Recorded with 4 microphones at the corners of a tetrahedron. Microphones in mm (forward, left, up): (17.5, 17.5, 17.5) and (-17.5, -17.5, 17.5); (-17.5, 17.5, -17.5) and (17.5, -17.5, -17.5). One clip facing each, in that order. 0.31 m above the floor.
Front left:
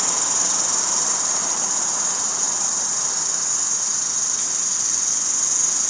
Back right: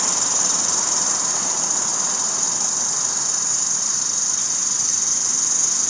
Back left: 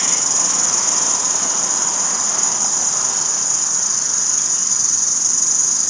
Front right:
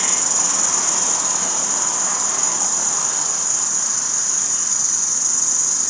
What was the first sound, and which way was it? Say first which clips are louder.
An insect: even, even; 125° left.